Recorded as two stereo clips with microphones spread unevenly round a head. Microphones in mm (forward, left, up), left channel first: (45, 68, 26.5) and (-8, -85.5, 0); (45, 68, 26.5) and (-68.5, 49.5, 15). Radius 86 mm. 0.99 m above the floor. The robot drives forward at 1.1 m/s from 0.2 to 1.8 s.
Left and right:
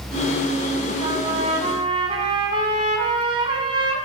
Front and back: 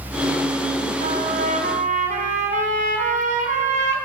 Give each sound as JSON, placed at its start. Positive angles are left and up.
{"t": 1.0, "sound": "a trumpet", "azimuth_deg": -170, "distance_m": 4.5}